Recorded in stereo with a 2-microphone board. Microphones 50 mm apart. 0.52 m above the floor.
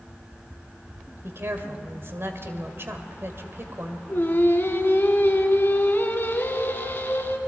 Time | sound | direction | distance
1.2 | a woman speaking | 50° right (ahead or behind) | 2 m
4.1 | singing | 40° left (ahead or behind) | 1.7 m